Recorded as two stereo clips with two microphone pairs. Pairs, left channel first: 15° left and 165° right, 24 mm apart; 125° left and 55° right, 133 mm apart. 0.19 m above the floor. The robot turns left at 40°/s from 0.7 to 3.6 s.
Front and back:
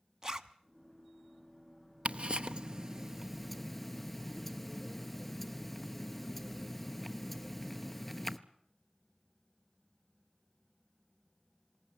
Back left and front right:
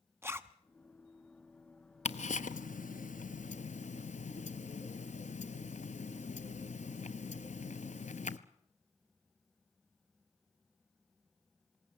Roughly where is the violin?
I don't hear a violin.